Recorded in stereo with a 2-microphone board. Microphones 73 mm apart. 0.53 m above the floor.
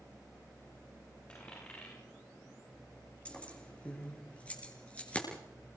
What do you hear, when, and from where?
1.3 s a dropped coin: 15° left (ahead or behind), 9.5 m
3.2 s keys jangling: 20° left (ahead or behind), 6.5 m